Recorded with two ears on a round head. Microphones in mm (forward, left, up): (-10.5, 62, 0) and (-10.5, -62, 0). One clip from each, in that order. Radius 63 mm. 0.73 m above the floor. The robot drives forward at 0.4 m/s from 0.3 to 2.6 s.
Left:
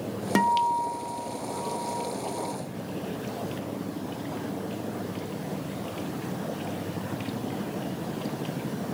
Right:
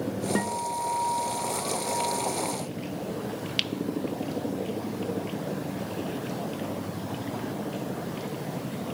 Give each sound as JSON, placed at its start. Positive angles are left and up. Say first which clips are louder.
{"t": 0.3, "sound": "a guitar", "louder": "left 9 dB", "side_deg": 60, "distance_m": 0.5}